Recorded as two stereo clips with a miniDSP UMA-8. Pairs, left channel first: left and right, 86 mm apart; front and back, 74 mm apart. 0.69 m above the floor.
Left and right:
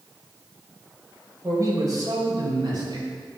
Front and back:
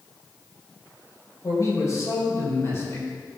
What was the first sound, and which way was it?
A man speaking, 40° right.